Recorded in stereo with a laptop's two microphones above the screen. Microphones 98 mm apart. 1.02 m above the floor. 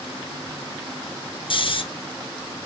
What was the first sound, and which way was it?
Snoring, 55° left (ahead or behind).